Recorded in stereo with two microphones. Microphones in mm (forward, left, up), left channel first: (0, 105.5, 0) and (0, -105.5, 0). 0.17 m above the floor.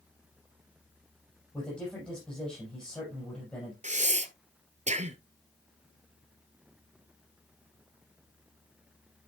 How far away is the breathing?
About 0.9 m.